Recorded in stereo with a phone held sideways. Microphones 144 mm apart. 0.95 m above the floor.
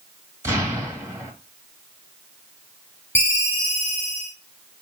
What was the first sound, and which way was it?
An explosion, 20° right (ahead or behind).